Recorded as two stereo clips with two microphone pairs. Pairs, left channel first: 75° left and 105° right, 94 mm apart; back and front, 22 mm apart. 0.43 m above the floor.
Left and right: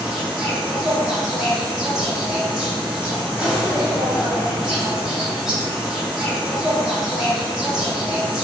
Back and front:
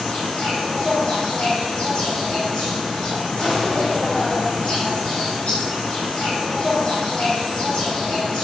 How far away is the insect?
About 1.1 m.